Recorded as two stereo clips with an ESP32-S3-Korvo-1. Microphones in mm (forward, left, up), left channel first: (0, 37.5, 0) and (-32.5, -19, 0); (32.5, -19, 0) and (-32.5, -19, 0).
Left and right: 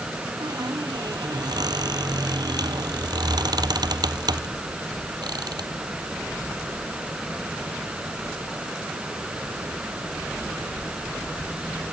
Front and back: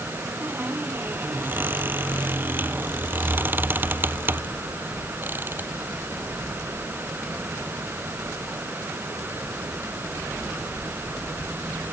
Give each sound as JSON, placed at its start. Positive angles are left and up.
{"t": 0.4, "sound": "a squeak", "azimuth_deg": -120}